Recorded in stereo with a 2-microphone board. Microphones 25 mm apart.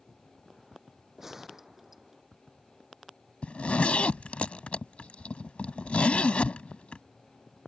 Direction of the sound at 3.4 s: 55° left (ahead or behind).